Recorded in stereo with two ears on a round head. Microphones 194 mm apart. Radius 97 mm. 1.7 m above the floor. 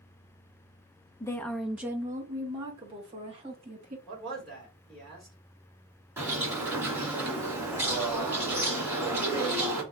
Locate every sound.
1.2 s a woman speaking: 15° left (ahead or behind), 0.6 m; by 4.0 s 30° right (ahead or behind), 1.9 m
4.1 s a man speaking: 5° left (ahead or behind), 2 m
6.2 s a bird: 10° right (ahead or behind), 1.7 m